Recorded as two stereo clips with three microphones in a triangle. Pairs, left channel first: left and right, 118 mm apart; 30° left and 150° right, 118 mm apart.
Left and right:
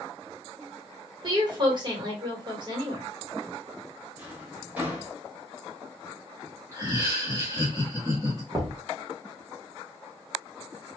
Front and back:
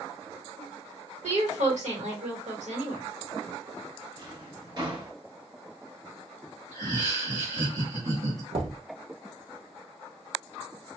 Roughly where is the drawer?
Behind.